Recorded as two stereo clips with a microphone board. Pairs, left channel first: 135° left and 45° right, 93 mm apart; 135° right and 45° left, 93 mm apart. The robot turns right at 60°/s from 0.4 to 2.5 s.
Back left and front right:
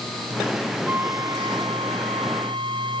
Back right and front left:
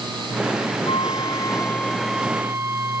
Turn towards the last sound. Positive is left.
turn(degrees=-20)